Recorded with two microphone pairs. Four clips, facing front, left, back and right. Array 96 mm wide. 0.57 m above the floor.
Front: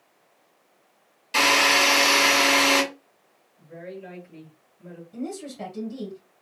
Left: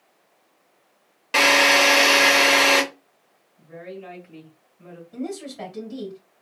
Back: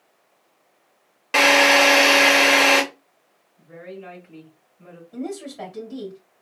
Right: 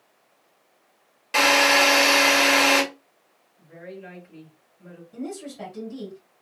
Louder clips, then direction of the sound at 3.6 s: Left 3 dB, back 1 dB; 130° left.